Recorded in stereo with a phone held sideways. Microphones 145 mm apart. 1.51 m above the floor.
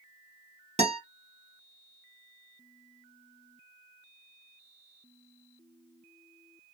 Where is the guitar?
45° right (ahead or behind), 0.9 m.